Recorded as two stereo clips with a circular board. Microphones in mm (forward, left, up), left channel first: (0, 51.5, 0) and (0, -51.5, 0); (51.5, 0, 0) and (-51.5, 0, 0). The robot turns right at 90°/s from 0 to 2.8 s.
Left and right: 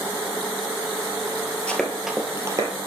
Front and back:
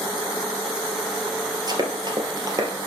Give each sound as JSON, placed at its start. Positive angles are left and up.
{"t": 1.7, "sound": "running footsteps", "azimuth_deg": 165, "distance_m": 1.6}